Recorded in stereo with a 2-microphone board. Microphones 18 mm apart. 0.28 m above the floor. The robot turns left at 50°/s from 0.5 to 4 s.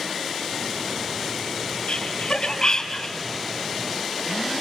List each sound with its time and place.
1.9 s laughter: 60° left (ahead or behind), 3 m; by 3.2 s 25° left (ahead or behind), 3 m